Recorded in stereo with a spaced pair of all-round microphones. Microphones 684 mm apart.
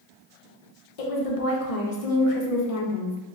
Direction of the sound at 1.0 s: 60° left (ahead or behind).